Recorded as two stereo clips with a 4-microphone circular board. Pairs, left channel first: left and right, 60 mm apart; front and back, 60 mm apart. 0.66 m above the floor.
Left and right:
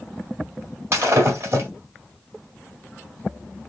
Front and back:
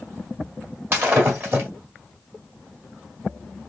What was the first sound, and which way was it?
Breaking glass, 130° right.